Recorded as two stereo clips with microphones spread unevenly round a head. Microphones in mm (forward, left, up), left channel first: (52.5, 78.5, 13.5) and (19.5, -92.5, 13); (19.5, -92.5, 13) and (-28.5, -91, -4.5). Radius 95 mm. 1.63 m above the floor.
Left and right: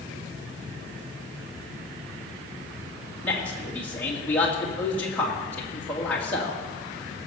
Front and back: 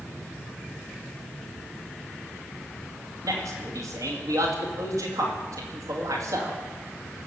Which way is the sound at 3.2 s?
160° left.